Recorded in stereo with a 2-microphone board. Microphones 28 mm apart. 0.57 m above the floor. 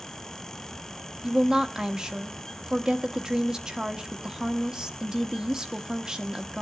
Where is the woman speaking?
25° right (ahead or behind), 1.3 m.